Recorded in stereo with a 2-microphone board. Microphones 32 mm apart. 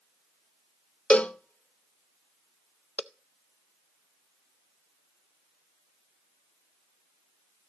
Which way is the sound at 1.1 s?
45° left (ahead or behind).